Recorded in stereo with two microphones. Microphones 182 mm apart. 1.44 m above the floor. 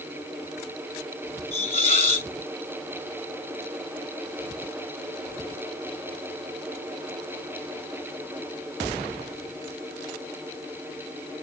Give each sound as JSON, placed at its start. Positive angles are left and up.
{"t": 1.5, "sound": "a hiss", "side_deg": 35, "distance_m": 1.3}